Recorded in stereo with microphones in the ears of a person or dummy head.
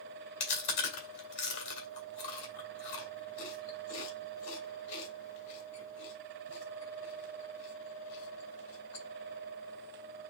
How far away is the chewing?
About 2 m.